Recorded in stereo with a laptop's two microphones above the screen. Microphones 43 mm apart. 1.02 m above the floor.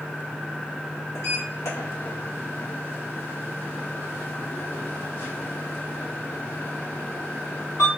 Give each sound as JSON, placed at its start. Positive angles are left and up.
{"t": 1.1, "sound": "a sliding door", "side_deg": 80, "distance_m": 1.5}